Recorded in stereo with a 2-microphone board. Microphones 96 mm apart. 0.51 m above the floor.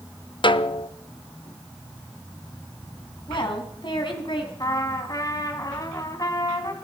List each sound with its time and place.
0.4 s a snare drum: 60° left (ahead or behind), 0.6 m
3.3 s a woman speaking: 55° left (ahead or behind), 3.5 m
4.6 s a trumpet: 40° left (ahead or behind), 2 m